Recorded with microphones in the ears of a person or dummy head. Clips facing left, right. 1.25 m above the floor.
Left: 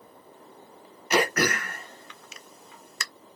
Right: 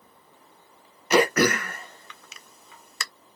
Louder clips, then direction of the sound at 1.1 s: Right 5 dB; 65° right (ahead or behind).